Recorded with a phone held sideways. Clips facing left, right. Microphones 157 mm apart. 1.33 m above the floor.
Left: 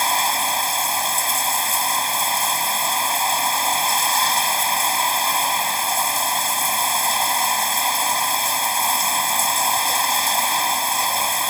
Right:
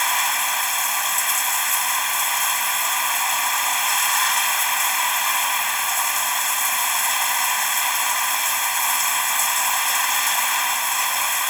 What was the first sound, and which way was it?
Running water, 30° left (ahead or behind).